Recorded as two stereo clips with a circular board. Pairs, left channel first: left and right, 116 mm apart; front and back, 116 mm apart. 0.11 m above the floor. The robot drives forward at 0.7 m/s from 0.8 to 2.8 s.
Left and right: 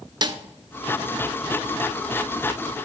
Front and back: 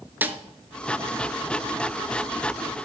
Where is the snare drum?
115° right, 0.5 m.